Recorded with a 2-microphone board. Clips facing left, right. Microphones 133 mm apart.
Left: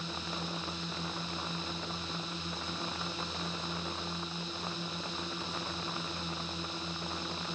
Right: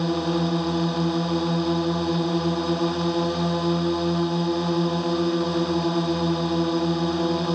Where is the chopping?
I don't hear chopping.